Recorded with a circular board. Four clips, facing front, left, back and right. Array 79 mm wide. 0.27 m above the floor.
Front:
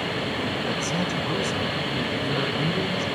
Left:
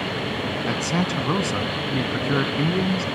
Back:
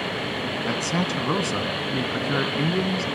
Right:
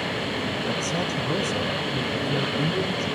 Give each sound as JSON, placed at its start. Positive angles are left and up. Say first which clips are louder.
{"t": 0.7, "sound": "a man speaking", "louder": "left 3 dB, back 1 dB", "azimuth_deg": 125, "distance_m": 2.5}